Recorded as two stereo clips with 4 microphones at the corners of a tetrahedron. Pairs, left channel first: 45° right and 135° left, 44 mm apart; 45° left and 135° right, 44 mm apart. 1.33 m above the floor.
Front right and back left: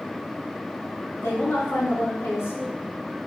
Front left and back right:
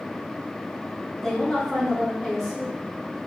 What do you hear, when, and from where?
1.2 s a woman speaking: 35° right, 3 m